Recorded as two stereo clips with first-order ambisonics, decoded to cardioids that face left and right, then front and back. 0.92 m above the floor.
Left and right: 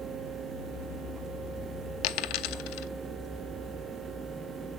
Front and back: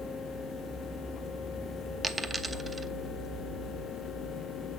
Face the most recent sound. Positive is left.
turn(degrees=100)